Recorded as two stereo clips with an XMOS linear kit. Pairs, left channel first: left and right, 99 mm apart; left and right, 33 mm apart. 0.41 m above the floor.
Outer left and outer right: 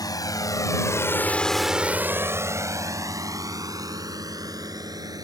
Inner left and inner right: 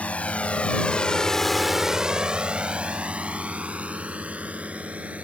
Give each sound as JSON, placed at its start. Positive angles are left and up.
{"t": 0.0, "sound": "a drone", "side_deg": 40}